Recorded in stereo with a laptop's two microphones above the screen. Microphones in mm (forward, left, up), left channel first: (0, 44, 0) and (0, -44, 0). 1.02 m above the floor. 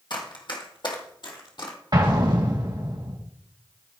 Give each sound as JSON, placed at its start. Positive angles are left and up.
{"t": 0.1, "sound": "running footsteps", "side_deg": 55, "distance_m": 1.9}
{"t": 1.9, "sound": "an explosion", "side_deg": -55, "distance_m": 1.8}